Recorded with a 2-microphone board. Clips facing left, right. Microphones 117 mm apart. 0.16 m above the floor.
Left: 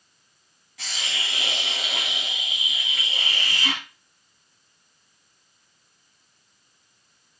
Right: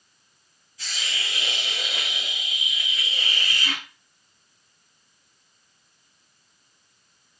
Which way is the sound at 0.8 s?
85° left.